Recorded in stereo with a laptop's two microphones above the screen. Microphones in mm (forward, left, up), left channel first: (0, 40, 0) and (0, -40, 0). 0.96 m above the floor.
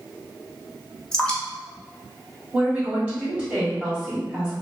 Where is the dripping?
10° left (ahead or behind), 0.6 m.